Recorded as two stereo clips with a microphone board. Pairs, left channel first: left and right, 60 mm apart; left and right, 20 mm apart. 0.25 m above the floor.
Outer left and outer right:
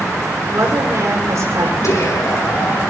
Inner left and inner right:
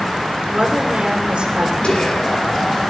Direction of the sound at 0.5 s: 55° right (ahead or behind).